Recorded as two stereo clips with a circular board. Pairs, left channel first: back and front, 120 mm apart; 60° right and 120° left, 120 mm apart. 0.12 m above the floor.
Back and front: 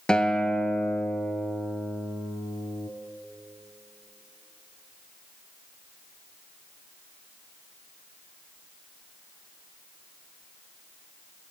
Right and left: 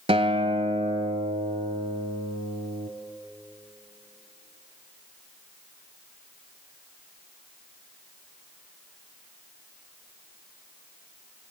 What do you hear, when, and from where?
0.1 s a guitar: 100° left, 0.6 m